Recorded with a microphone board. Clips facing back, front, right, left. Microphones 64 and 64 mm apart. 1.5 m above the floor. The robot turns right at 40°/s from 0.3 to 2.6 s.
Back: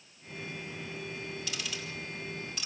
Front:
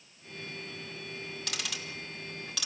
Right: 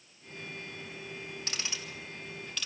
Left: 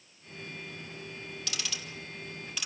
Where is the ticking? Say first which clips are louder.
Even, left 1 dB; 35° right, 3 m; by 2.7 s 10° left, 3 m.